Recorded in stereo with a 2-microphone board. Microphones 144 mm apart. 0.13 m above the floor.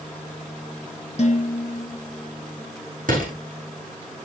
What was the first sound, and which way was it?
Dishes clattering, 50° left (ahead or behind).